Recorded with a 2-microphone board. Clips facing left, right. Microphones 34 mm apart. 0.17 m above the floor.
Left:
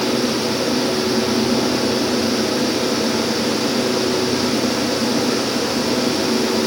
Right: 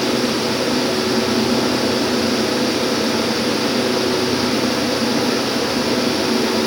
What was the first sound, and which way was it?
Only background noise.